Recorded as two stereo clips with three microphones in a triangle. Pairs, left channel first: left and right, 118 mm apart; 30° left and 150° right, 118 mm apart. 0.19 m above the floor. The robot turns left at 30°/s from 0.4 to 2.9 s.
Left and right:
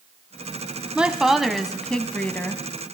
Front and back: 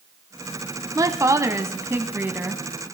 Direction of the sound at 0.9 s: 165° right.